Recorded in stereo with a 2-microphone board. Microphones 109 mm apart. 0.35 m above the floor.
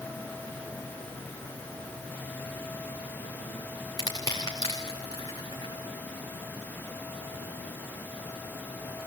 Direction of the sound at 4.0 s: 35° left (ahead or behind).